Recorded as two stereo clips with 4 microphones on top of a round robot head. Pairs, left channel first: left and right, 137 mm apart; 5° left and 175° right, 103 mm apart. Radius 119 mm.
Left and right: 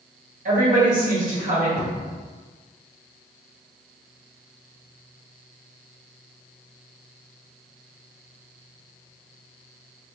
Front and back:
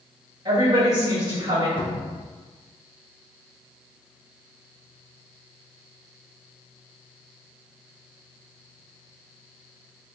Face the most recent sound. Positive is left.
turn(degrees=45)